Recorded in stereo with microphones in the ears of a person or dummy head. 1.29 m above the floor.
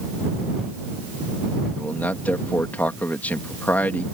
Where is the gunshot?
No gunshot in this recording.